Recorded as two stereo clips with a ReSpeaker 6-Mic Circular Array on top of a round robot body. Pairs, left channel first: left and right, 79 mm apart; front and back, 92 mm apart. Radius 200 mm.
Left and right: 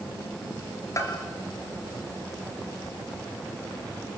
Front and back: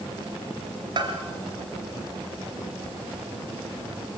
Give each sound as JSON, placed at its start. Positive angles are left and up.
{"t": 1.0, "sound": "a bell", "azimuth_deg": 145, "distance_m": 2.5}